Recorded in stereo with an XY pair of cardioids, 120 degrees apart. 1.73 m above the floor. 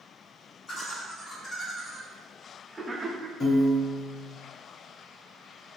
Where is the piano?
40° left, 0.9 m.